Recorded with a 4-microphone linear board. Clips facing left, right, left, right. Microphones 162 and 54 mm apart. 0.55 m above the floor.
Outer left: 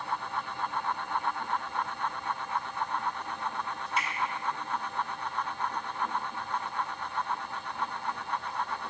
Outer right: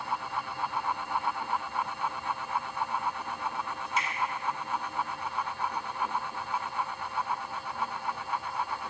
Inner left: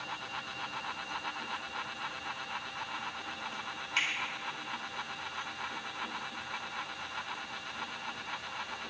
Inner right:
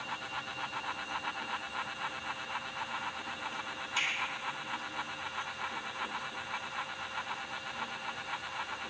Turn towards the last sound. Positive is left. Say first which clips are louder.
# outer right 1 dB, inner left 2 dB
turn(degrees=55)  # may be behind; listen again after turning